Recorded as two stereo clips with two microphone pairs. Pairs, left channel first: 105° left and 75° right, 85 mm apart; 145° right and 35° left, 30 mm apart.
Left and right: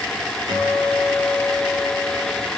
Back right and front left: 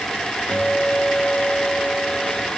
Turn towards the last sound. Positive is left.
turn(degrees=-90)